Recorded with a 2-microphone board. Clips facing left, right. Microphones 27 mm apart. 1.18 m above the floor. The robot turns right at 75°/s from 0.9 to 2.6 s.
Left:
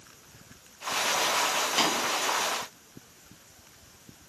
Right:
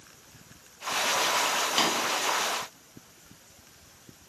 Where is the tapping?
15° right (ahead or behind), 1.0 m; by 1.9 s 20° right (ahead or behind), 1.0 m.